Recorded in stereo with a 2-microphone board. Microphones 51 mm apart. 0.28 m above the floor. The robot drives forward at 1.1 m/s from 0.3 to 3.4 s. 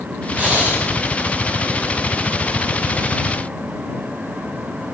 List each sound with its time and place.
0.4 s breathing: 25° right (ahead or behind), 8.5 m